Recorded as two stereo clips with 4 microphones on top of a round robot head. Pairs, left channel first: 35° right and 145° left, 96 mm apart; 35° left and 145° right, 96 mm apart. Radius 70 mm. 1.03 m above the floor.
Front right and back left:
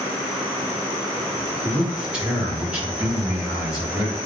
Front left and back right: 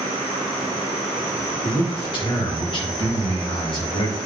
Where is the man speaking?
65° left, 3.5 m.